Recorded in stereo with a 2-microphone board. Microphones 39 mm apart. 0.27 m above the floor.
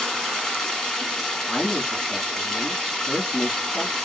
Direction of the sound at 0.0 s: 20° left (ahead or behind).